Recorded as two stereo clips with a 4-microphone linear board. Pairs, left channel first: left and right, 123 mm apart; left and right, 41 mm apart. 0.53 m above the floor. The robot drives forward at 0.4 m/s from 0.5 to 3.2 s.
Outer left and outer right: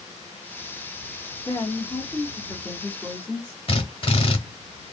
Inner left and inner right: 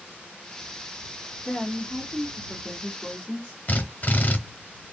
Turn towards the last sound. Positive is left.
turn(degrees=45)  # may be behind; listen again after turning